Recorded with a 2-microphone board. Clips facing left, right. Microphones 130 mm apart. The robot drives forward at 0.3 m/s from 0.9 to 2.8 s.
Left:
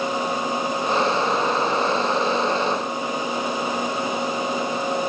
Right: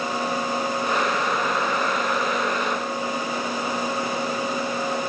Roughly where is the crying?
No crying in this recording.